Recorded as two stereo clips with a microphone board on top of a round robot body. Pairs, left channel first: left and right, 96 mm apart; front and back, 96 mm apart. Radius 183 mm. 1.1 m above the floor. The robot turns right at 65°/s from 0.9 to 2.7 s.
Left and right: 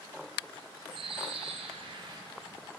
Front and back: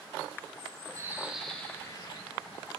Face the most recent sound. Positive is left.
turn(degrees=-5)